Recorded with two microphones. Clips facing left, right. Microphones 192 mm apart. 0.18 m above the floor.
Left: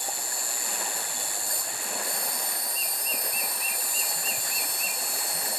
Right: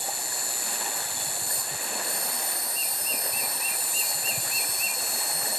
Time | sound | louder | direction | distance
0.0 | an insect | right 1 dB | 70° right (ahead or behind) | 1.1 m